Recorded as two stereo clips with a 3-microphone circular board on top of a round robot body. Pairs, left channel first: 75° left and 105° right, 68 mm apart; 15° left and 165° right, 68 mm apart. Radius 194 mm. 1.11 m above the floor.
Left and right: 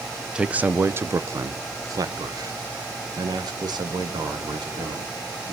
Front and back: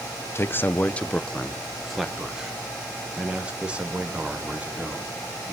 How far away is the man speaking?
About 1.0 m.